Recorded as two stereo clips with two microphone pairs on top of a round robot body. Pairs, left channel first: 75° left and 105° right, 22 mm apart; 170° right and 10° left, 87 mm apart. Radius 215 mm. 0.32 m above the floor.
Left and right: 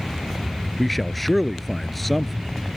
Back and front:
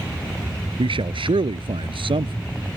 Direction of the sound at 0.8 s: 10° right.